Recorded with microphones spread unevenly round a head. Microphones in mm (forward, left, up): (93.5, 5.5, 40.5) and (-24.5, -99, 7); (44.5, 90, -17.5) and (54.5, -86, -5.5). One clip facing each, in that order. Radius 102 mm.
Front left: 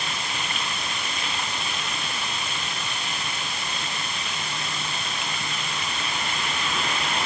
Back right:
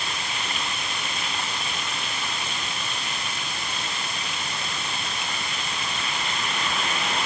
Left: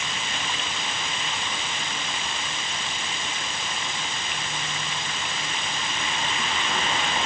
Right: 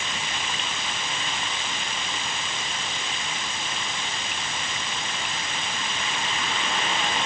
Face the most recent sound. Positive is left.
No sound to turn to.